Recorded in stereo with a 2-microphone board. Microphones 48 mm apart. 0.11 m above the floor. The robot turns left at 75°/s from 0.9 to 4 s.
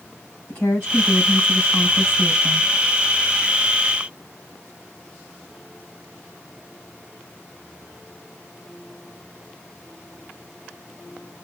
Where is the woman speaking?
140° left, 4.5 m; by 2.6 s 10° left, 4.5 m.